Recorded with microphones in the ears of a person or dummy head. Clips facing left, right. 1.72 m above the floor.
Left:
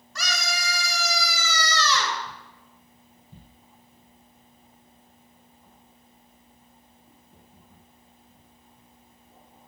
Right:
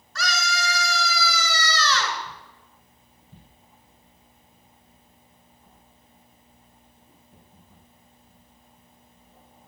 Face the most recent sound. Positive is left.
turn(degrees=20)  # may be behind; listen again after turning